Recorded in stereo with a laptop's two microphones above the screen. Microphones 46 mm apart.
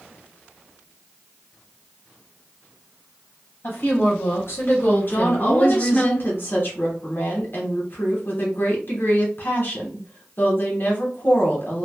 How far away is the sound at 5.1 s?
About 1.0 m.